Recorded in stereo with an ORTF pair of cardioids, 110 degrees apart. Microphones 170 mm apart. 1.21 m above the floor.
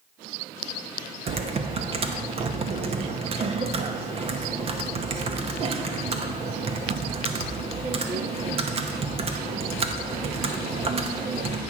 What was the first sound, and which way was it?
Typing on a keyboard, 35° right.